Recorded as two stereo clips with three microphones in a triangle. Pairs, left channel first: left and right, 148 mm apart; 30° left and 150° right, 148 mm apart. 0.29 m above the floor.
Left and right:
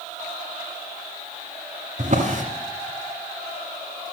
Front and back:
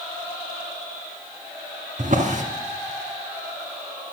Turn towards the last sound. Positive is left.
turn(degrees=-125)